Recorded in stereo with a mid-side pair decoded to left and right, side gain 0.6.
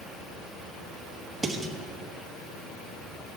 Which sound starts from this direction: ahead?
Dishes clattering, at 1.4 s.